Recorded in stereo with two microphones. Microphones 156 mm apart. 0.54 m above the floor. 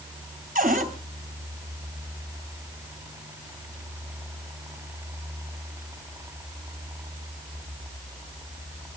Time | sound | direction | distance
0.6 | a cupboard door | 60° right (ahead or behind) | 3 m